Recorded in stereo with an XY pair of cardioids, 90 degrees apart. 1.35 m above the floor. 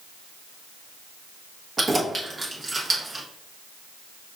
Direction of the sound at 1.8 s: 40° right.